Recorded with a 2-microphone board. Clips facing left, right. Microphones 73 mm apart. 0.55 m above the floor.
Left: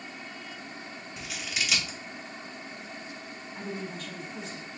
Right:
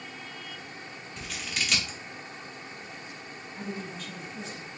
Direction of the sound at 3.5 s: 45° left (ahead or behind).